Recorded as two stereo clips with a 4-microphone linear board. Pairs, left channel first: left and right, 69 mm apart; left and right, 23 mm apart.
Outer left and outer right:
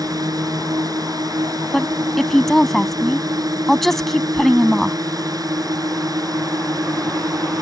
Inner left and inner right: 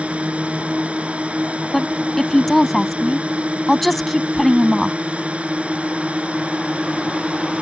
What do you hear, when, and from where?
0.0 s a drone: 65° right (ahead or behind)
1.7 s a woman speaking: 5° left (ahead or behind)